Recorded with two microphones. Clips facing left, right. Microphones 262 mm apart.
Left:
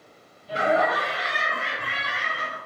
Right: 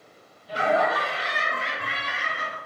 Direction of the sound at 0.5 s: 25° left (ahead or behind).